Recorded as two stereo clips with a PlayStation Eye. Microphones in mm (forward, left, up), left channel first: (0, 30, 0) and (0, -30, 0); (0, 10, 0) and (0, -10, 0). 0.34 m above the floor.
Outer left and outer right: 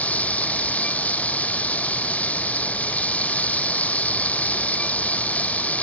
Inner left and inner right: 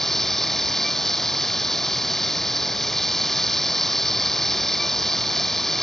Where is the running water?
25° left (ahead or behind).